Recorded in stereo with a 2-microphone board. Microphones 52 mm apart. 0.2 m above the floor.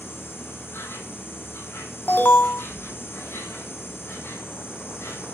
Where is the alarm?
40° left (ahead or behind), 1.0 m.